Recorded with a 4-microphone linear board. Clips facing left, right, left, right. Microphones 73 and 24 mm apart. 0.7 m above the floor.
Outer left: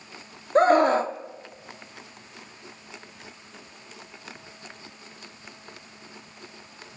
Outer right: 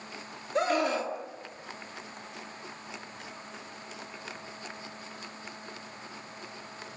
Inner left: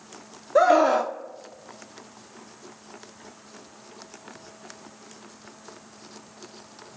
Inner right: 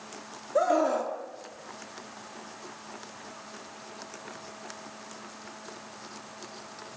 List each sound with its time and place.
0.6 s a scream: 45° left (ahead or behind), 1.3 m